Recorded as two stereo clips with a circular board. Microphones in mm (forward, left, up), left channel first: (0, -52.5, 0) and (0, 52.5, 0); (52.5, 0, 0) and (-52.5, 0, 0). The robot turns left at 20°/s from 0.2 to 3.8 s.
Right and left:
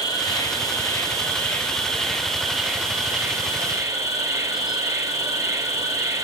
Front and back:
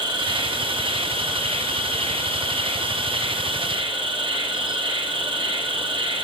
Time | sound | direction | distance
0.0 | an insect | 140° right | 5 m